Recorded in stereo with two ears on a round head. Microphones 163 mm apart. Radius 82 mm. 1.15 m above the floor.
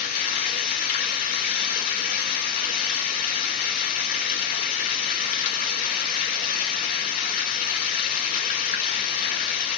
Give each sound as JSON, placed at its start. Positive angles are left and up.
{"t": 0.0, "sound": "running water", "side_deg": 50, "distance_m": 1.5}